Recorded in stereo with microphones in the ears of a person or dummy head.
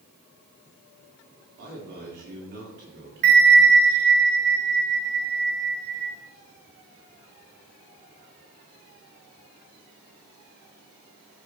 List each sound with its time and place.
1.6 s a man speaking: 55° right (ahead or behind), 3.5 m
3.2 s a bell: 50° right (ahead or behind), 1.0 m